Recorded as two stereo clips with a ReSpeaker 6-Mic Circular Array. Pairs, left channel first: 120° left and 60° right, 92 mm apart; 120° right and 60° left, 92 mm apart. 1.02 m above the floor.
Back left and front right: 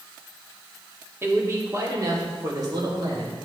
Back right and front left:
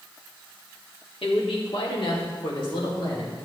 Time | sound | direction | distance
1.2 | a man speaking | 120° right | 1.9 m